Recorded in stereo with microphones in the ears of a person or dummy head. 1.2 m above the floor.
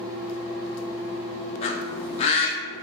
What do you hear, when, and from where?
1.6 s a bird: 40° left (ahead or behind), 0.7 m